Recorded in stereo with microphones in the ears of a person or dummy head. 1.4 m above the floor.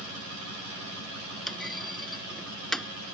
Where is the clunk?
Centre (ahead or behind).